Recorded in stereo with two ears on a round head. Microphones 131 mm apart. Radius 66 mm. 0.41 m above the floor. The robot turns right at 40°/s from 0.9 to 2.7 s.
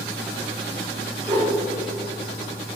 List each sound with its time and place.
1.3 s a whoosh: 30° right (ahead or behind), 1.8 m; by 1.6 s 25° right (ahead or behind), 1.8 m